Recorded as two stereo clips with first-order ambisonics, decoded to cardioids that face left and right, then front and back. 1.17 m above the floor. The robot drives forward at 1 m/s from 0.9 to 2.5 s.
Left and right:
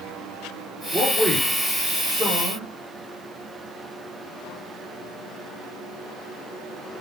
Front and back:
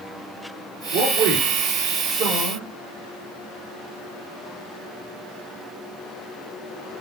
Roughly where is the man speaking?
Behind.